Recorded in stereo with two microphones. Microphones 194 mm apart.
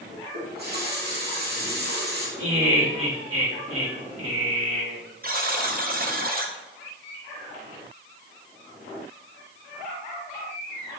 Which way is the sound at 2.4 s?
85° right.